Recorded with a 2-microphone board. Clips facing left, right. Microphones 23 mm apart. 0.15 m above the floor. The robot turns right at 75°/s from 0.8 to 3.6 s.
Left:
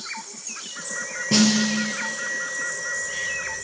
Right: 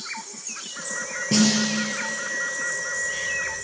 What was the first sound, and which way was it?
A snare drum, 5° left.